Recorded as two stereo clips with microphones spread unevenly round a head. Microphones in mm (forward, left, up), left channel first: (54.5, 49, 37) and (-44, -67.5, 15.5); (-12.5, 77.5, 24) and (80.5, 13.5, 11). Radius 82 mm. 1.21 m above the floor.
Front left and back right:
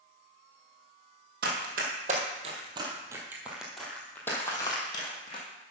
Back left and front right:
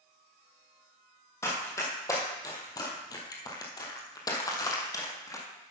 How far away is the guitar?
I don't hear a guitar.